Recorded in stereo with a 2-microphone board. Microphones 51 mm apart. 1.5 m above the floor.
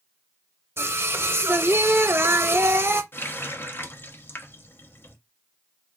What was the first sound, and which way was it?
Singing, 50° right (ahead or behind).